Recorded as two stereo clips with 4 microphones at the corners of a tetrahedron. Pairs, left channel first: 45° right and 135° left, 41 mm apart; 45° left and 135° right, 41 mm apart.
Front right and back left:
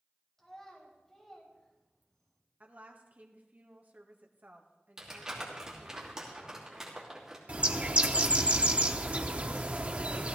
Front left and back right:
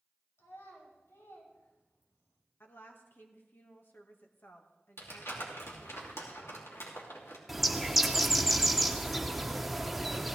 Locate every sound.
0.4 s a child speaking: 35° left, 5 m
2.6 s a woman speaking: 85° left, 1.9 m
5.0 s crumpling: 55° left, 3 m
7.5 s a bird: 140° left, 0.9 m